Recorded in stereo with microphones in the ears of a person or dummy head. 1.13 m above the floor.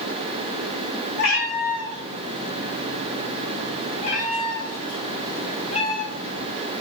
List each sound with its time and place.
1.2 s a cat meowing: 55° left (ahead or behind), 1.6 m; by 6.4 s 30° left (ahead or behind), 3 m